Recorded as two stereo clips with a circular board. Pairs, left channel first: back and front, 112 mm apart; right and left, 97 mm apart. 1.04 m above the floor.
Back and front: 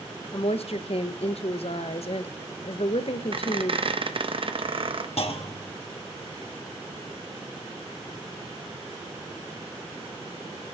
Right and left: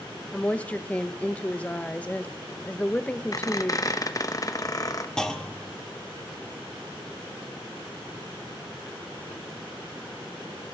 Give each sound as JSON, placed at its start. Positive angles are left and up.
{"t": 0.3, "sound": "a woman speaking", "azimuth_deg": -165, "distance_m": 0.6}
{"t": 3.3, "sound": "a squeak", "azimuth_deg": -35, "distance_m": 0.6}
{"t": 5.2, "sound": "a clunk", "azimuth_deg": -175, "distance_m": 0.9}